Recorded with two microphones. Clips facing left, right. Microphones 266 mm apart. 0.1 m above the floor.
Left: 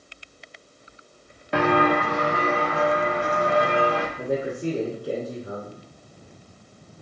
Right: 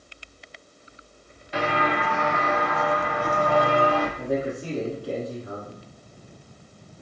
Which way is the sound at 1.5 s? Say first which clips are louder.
Left 6 dB; 65° left (ahead or behind).